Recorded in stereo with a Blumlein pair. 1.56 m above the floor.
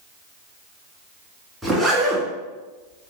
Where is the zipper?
5° right, 2 m.